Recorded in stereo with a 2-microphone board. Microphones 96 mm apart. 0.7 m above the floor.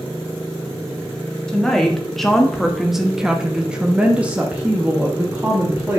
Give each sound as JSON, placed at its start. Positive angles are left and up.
{"t": 1.5, "sound": "a woman speaking", "side_deg": 5, "distance_m": 1.5}